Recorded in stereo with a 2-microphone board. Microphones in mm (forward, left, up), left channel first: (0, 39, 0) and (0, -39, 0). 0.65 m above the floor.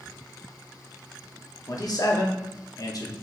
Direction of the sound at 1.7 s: 55° left (ahead or behind).